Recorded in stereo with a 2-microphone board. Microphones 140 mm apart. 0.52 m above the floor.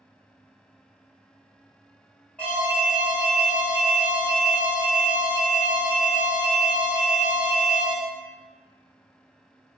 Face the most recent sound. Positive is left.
turn(degrees=10)  # may be behind; listen again after turning